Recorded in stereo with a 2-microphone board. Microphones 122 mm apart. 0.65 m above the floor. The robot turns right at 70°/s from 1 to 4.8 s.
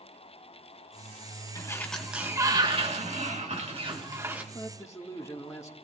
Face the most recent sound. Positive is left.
turn(degrees=25)  # may be behind; listen again after turning